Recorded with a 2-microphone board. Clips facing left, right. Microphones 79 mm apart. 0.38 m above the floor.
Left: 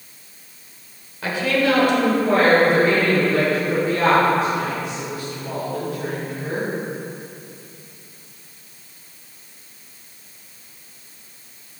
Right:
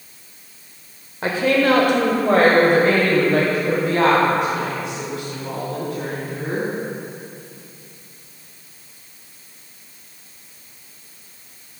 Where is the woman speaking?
35° right (ahead or behind), 0.9 m; by 6.7 s 75° right (ahead or behind), 3.5 m.